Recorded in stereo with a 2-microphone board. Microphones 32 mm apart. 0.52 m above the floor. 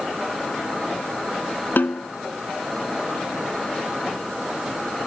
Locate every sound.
1.8 s a snare drum: 70° left (ahead or behind)